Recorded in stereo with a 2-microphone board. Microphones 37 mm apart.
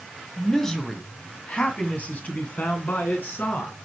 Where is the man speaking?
10° left (ahead or behind), 1.7 m; by 3.8 s 60° left (ahead or behind), 3 m.